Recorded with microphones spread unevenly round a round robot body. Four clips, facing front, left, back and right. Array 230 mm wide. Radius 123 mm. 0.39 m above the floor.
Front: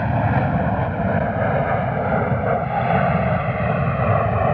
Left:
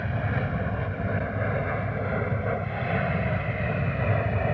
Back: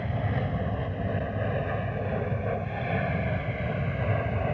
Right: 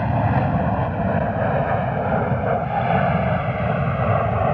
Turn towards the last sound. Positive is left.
turn(degrees=-25)